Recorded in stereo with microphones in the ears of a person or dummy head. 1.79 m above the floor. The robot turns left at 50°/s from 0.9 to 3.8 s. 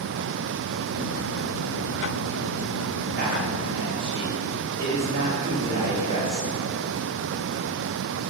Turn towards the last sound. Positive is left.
turn(degrees=-155)